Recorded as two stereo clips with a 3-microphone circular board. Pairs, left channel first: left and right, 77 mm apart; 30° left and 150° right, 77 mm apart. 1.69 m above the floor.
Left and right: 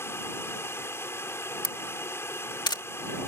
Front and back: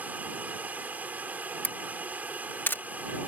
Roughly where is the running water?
Behind left.